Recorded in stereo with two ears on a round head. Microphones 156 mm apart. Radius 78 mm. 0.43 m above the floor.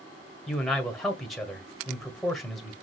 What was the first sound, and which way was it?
A man speaking, centre (ahead or behind).